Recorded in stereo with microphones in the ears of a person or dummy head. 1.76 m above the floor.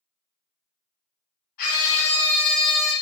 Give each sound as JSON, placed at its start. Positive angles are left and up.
{"t": 1.6, "sound": "a scream", "side_deg": 50, "distance_m": 1.2}